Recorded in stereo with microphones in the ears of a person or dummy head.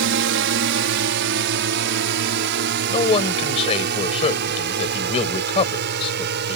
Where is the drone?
60° right (ahead or behind); by 6.6 s 55° right (ahead or behind).